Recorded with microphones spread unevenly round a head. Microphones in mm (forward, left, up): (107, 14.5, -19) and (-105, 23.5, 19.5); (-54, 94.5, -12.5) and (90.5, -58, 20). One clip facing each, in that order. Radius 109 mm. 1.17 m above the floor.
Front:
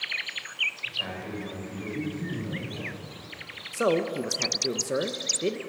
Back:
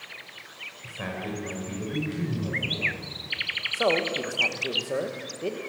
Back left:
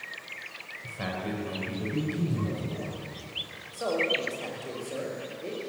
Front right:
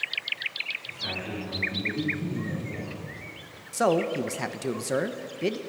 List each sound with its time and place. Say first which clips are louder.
0.8 s a man speaking: back 4 dB, back left 3 dB; 140° left, 6.5 m; by 3.0 s 165° left, 7 m
3.7 s a man speaking: front 1 dB, front right 5 dB; 60° right, 1.2 m